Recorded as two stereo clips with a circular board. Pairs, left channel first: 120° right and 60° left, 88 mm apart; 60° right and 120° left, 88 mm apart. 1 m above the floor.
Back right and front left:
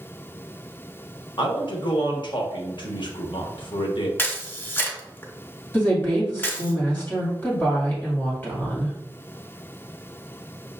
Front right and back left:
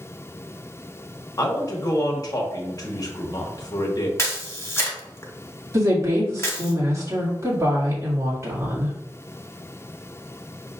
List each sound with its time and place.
1.4 s a man speaking: 100° right, 1.0 m
4.2 s a camera shutter: 80° right, 0.7 m
5.7 s a woman speaking: 175° left, 2 m